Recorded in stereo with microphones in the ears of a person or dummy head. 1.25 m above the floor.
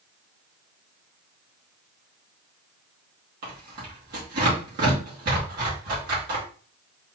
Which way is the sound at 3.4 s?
50° right (ahead or behind).